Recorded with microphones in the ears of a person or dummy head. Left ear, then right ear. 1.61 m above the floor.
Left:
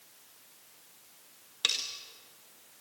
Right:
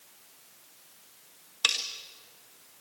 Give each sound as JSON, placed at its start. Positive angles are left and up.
{"t": 1.6, "sound": "cutlery clinking", "side_deg": -10, "distance_m": 0.7}